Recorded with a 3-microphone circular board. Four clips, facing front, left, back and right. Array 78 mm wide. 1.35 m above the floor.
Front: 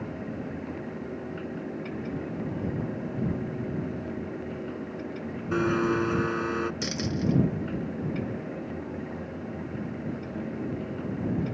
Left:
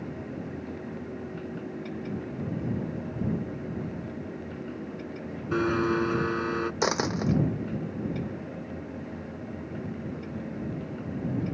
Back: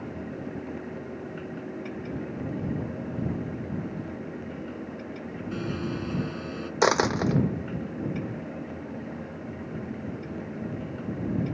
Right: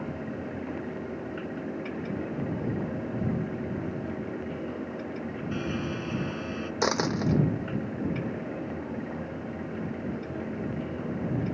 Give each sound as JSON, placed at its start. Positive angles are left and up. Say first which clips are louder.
{"t": 5.5, "sound": "a blender", "louder": "left 9 dB, front 8 dB", "azimuth_deg": 50}
{"t": 6.8, "sound": "a dropped coin", "louder": "right 3 dB, back 7 dB", "azimuth_deg": 175}